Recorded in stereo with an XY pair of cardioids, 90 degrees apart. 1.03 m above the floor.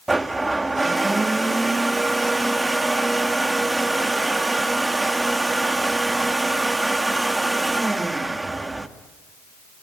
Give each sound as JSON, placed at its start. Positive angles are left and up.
{"t": 0.1, "sound": "a blender", "azimuth_deg": -20, "distance_m": 1.7}